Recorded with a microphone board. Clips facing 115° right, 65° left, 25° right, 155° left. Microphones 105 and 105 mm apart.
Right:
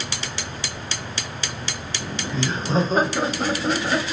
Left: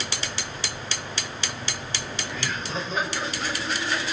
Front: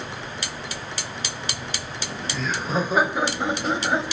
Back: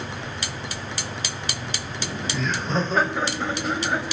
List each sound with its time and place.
2.0 s laughter: 135° right, 0.9 m; by 4.0 s 85° right, 1.7 m